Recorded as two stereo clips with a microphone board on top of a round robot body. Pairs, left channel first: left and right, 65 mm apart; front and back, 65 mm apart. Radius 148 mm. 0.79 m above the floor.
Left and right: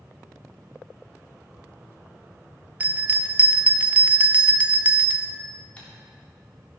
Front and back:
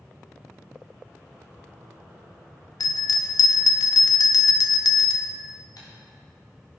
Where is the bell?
20° right, 0.5 m.